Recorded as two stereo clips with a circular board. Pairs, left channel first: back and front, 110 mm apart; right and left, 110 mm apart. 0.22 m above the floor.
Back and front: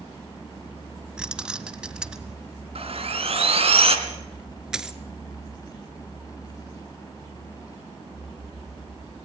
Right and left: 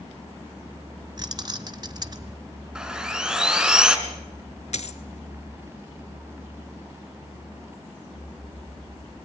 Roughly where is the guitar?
No guitar in this recording.